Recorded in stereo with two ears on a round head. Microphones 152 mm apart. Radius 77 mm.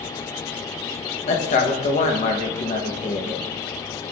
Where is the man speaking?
45° left (ahead or behind), 1.0 m.